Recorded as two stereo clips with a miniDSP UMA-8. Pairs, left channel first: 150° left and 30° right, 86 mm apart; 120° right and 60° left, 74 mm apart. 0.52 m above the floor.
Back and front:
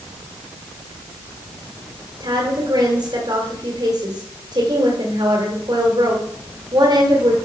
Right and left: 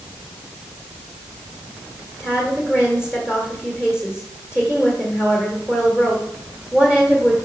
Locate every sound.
2.2 s a woman speaking: 15° right, 1.8 m